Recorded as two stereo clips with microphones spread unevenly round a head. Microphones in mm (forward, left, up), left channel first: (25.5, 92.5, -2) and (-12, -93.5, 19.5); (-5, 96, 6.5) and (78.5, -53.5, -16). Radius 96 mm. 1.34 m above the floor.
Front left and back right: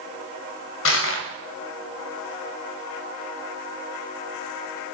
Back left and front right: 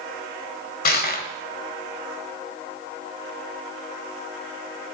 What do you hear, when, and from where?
0.8 s crushing: 100° left, 2 m